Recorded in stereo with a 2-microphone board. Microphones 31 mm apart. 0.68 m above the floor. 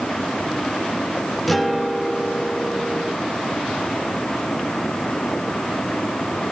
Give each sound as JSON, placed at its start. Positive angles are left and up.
{"t": 1.5, "sound": "a guitar", "side_deg": 0, "distance_m": 1.0}